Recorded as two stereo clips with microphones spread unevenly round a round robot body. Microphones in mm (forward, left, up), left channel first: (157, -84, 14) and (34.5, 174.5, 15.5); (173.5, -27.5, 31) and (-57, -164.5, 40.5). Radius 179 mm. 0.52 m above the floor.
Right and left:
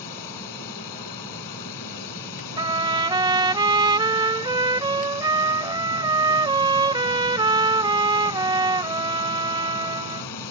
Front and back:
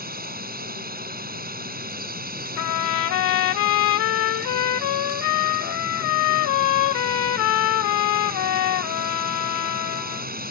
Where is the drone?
95° right.